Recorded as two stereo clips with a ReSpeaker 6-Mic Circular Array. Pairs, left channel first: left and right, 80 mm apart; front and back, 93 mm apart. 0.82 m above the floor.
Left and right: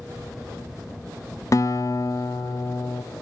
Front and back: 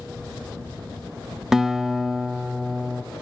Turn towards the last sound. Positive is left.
turn(degrees=100)